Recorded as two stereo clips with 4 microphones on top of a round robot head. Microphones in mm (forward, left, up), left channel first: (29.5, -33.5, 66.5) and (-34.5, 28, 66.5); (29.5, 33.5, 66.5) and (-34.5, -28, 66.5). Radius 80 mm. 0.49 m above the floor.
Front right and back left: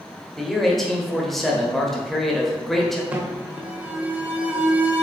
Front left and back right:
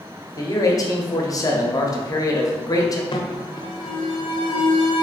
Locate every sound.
0.4 s a man speaking: 45° left, 1.0 m
3.1 s an alarm: 65° left, 0.8 m